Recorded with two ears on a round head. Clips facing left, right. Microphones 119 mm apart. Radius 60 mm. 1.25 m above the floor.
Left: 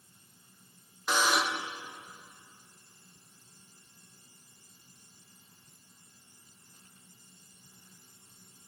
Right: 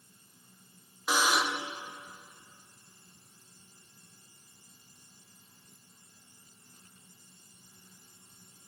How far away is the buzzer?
About 0.6 m.